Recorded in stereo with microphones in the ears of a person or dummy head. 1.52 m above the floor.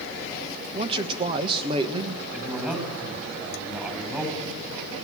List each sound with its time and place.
0.7 s a man speaking: 20° right (ahead or behind), 1.6 m
2.3 s a man speaking: 10° right (ahead or behind), 10 m